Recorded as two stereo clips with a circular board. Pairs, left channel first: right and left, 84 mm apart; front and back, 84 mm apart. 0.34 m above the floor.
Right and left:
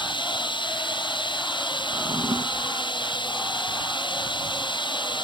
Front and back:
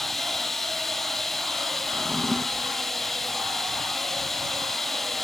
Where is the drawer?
95° left.